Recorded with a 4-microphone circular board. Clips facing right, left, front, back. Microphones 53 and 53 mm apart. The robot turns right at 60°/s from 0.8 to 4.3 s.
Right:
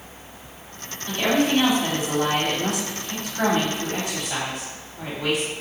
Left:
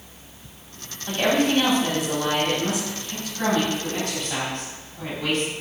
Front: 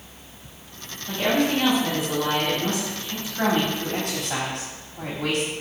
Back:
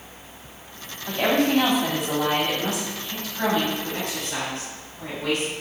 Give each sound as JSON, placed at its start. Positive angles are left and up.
{"t": 1.1, "sound": "a woman speaking", "azimuth_deg": 155, "distance_m": 3.0}